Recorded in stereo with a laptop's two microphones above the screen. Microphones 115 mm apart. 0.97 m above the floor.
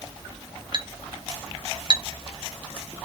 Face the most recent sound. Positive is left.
turn(degrees=-45)  # may be behind; listen again after turning